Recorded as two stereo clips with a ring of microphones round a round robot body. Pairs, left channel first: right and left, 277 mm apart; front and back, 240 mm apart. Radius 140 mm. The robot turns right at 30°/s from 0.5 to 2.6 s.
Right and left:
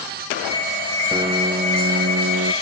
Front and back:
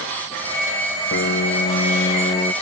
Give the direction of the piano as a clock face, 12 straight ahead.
11 o'clock.